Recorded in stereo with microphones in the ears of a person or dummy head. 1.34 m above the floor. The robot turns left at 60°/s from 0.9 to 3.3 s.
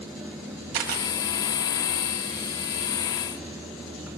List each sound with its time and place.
0.7 s a camera shutter: 50° right (ahead or behind), 1.3 m; by 1.1 s 40° right (ahead or behind), 1.3 m